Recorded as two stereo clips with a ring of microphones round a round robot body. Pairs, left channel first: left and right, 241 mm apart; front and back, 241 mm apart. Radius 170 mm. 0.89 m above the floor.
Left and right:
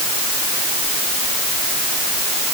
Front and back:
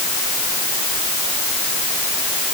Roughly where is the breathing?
No breathing in this recording.